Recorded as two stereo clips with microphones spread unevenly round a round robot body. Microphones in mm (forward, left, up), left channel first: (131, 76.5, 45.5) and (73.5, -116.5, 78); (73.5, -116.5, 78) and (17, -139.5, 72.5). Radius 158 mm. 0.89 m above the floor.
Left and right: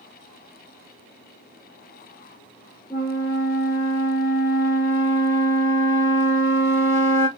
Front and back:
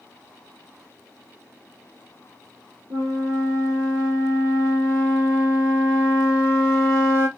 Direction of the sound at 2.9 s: 160° left.